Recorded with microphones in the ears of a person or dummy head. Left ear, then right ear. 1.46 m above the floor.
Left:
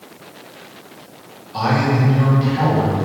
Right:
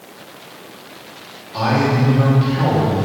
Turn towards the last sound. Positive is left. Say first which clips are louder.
# right 1 dB
turn(degrees=0)  # may be behind; listen again after turning